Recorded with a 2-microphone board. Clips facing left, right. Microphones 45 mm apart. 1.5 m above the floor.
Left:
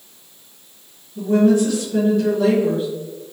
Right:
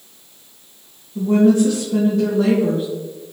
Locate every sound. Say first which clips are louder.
1.1 s a woman speaking: right 1 dB; 55° right (ahead or behind), 1.4 m